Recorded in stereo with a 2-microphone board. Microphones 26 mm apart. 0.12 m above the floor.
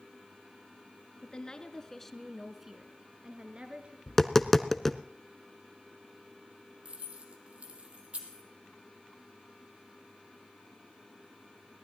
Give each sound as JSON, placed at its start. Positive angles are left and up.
{"t": 1.2, "sound": "a woman speaking", "side_deg": 35, "distance_m": 1.3}
{"t": 4.1, "sound": "tapping", "side_deg": 10, "distance_m": 0.6}
{"t": 6.8, "sound": "keys jangling", "side_deg": -50, "distance_m": 2.5}